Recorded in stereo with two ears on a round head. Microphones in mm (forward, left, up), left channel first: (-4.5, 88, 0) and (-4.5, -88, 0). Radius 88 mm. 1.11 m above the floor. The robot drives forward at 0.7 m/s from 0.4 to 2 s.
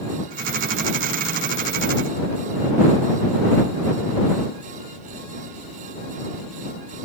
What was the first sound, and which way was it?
Only background noise.